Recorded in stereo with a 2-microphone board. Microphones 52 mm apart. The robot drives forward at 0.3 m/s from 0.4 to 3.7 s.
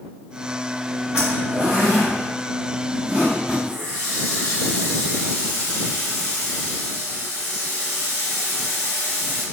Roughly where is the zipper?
Right.